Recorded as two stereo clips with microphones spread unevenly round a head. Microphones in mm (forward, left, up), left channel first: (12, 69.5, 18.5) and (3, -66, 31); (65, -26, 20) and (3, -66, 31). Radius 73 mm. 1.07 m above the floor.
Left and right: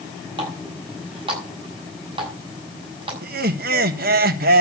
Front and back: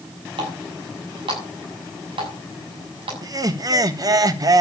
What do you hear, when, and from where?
0.4 s a running tap: 150° right, 6.5 m
3.2 s laughter: 110° right, 1.4 m